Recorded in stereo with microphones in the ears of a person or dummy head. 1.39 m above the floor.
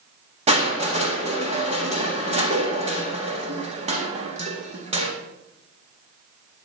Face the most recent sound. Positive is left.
turn(degrees=-30)  # may be behind; listen again after turning